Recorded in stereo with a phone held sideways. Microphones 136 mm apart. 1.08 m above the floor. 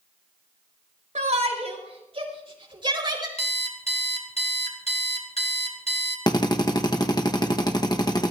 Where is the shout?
60° right (ahead or behind), 5 m; by 3.3 s 30° right (ahead or behind), 4.5 m.